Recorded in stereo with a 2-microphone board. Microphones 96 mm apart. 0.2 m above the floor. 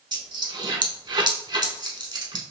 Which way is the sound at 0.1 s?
50° right (ahead or behind).